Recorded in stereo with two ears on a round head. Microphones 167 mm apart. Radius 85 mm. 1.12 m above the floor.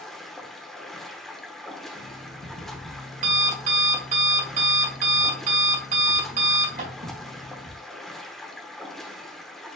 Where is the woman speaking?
No woman speaking in this recording.